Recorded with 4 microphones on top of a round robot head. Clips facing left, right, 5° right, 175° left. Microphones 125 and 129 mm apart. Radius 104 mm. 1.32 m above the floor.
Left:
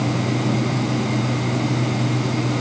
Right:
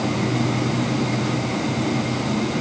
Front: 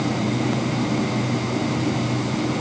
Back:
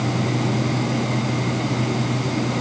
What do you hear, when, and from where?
Only background noise.